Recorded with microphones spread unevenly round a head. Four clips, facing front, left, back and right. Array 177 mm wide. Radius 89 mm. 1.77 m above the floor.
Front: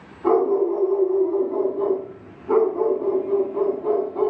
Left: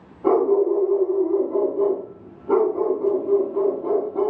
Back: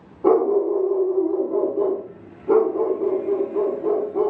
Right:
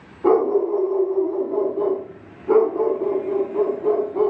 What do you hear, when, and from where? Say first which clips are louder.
0.2 s a dog barking: even, back 1 dB; 175° right, 1.4 m